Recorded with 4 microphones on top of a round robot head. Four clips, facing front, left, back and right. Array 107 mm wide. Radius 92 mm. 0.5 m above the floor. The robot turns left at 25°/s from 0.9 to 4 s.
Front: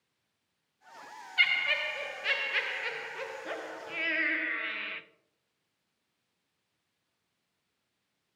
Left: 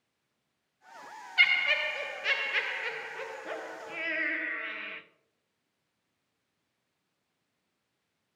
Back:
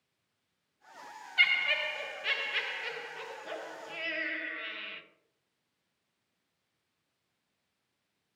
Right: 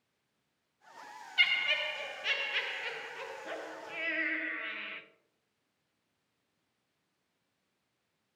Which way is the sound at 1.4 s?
95° left.